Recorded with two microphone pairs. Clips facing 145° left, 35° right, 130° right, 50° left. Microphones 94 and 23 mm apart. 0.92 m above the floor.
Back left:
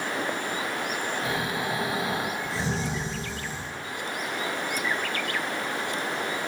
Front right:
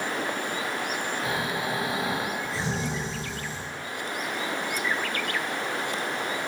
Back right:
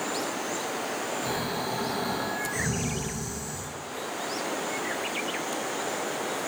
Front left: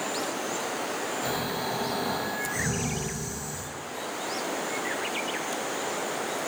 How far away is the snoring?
About 1.1 m.